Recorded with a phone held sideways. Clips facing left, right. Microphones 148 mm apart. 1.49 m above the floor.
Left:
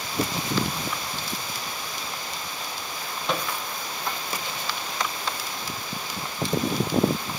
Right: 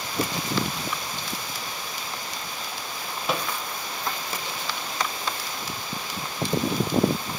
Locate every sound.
3.3 s a microwave: 5° right (ahead or behind), 0.8 m